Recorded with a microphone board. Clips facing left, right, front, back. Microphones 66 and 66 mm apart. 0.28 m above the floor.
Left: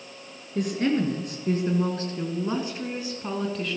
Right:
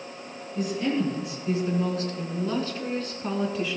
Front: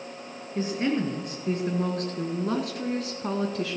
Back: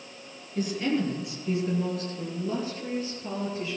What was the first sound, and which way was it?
A woman speaking, 60° left.